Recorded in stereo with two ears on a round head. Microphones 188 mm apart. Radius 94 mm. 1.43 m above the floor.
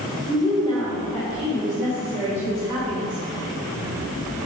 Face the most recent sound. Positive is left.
turn(degrees=-25)  # may be behind; listen again after turning